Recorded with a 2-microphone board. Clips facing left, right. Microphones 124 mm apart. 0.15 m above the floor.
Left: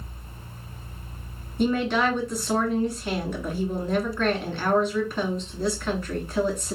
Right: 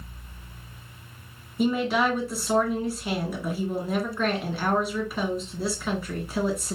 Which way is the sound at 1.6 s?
5° right (ahead or behind).